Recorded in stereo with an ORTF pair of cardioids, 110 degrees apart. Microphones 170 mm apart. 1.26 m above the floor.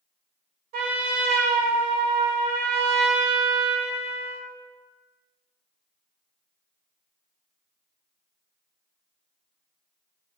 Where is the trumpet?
60° right, 0.7 m.